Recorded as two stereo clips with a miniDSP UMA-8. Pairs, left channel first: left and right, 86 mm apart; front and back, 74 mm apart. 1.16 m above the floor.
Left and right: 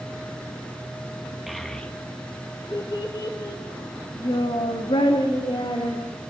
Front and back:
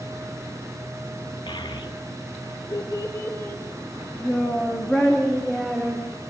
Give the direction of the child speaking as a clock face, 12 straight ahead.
12 o'clock.